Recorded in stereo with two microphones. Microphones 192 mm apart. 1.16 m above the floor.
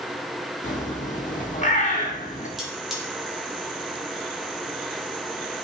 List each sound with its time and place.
0.6 s a bird: 40° left (ahead or behind), 1.0 m
2.6 s cutlery clinking: centre (ahead or behind), 2 m